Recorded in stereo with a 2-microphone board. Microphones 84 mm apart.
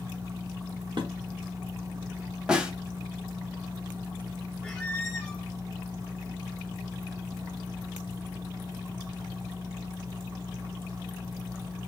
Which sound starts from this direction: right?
Dishes clattering, at 1.0 s.